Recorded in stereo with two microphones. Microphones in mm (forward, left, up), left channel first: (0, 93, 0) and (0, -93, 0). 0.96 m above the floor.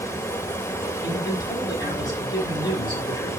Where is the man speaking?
25° left (ahead or behind), 7.5 m.